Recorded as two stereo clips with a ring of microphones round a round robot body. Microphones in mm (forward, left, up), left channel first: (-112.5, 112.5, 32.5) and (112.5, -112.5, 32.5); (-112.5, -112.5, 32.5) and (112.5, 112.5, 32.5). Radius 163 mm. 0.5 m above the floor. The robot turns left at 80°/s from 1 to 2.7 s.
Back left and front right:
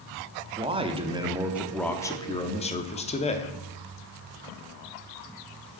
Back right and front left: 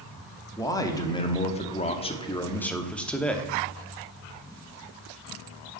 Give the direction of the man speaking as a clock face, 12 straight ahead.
3 o'clock.